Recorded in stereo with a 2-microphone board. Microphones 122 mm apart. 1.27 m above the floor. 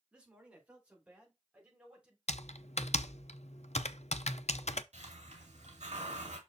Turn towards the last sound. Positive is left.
turn(degrees=-75)  # may be behind; listen again after turning